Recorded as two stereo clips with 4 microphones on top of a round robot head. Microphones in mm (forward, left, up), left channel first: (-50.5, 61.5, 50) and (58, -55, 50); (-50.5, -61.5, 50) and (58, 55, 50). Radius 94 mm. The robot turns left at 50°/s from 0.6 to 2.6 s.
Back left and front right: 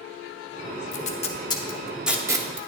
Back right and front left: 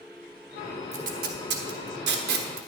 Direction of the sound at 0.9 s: 95° left.